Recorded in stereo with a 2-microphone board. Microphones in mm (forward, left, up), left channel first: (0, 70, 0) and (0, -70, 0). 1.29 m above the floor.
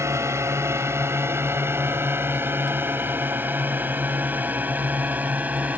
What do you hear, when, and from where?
0.0 s a drone: 20° right (ahead or behind); by 5.8 s 10° right (ahead or behind)